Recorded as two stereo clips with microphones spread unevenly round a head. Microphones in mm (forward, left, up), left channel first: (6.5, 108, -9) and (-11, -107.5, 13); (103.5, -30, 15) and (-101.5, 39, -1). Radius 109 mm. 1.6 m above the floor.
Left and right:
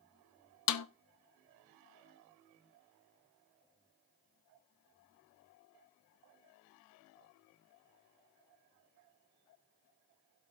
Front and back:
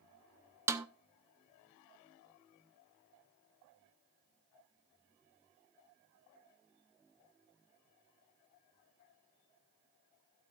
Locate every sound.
0.7 s a snare drum: 80° left, 0.8 m